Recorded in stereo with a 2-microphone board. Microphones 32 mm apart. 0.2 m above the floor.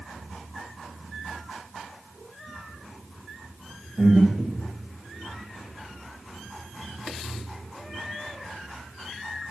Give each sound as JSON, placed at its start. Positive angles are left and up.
{"t": 4.0, "sound": "breathing", "side_deg": 0, "distance_m": 8.0}